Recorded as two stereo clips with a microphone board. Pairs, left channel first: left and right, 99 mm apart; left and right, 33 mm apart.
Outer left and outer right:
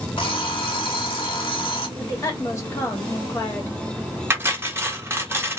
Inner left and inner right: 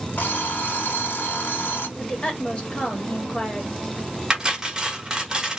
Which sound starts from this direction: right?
Cutlery clinking, at 4.3 s.